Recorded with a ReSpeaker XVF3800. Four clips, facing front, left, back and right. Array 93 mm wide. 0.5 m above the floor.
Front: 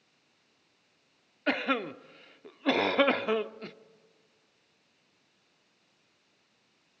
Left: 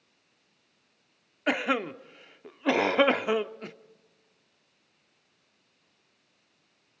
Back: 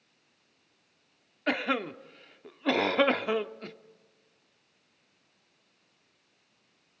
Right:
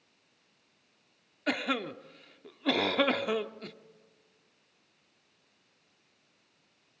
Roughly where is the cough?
Left.